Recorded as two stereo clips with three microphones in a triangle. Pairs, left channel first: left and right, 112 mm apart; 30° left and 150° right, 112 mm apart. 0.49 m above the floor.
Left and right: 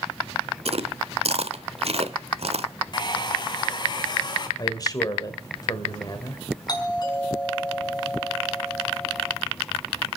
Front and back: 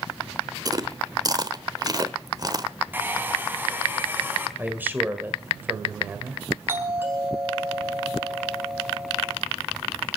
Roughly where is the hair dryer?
Behind left.